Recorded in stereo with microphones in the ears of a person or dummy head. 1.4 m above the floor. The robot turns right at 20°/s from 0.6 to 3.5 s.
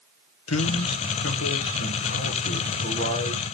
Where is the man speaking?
95° left, 1.5 m; by 3.5 s 150° left, 1.5 m.